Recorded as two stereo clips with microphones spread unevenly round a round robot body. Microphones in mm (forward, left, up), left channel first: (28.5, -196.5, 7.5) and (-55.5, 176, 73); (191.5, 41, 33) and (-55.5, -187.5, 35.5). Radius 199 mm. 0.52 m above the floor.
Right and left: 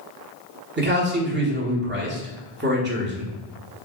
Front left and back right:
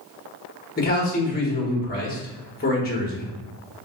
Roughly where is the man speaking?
Ahead left.